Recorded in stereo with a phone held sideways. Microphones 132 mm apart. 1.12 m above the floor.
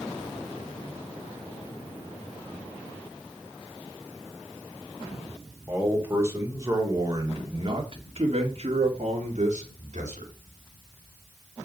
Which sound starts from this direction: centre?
A man speaking, at 5.7 s.